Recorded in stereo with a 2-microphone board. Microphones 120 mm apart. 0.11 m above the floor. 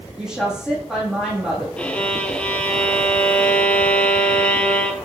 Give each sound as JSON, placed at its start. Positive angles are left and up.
{"t": 0.2, "sound": "a woman speaking", "side_deg": -5, "distance_m": 5.0}
{"t": 1.8, "sound": "a violin", "side_deg": 10, "distance_m": 1.0}